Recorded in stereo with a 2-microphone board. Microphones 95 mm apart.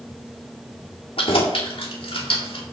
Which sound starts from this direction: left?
Keys jangling, at 1.2 s.